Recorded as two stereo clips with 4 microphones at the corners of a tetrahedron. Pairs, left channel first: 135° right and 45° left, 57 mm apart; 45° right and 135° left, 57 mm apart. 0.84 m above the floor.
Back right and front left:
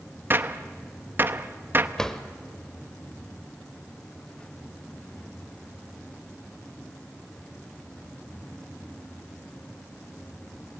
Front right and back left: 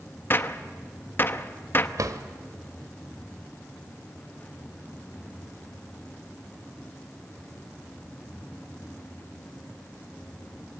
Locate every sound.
0.3 s a gunshot: straight ahead, 0.8 m
2.0 s a drawer: 145° left, 1.1 m